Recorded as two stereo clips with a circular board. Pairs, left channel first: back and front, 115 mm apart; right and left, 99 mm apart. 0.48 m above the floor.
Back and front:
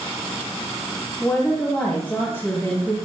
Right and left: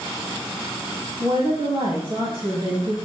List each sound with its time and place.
1.2 s a woman speaking: 110° left, 3 m